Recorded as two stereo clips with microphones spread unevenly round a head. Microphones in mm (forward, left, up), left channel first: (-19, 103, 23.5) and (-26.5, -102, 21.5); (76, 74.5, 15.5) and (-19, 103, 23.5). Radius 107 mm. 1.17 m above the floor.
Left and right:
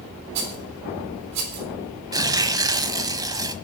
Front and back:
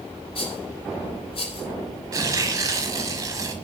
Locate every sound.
0.3 s a rattle: 80° right, 4 m
2.1 s tearing paper: 160° right, 1.2 m